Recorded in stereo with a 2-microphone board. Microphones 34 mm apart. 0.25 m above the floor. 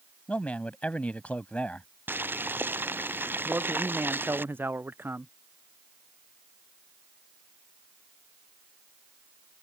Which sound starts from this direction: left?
A man speaking, at 0.3 s.